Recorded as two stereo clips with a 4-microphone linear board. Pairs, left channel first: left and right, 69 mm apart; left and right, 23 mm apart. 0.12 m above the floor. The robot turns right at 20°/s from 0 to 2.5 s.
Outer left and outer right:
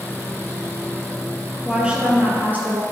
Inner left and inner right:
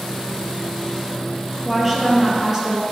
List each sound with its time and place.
1.6 s a woman speaking: 10° right (ahead or behind), 3 m; by 2.8 s 25° right (ahead or behind), 3 m